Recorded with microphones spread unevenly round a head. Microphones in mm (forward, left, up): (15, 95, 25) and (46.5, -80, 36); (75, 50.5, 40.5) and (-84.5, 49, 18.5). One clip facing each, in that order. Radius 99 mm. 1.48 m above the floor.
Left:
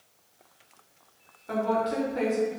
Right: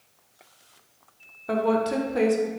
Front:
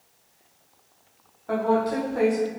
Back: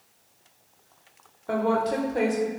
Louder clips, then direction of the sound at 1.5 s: Right 4 dB, front 1 dB; 115° right.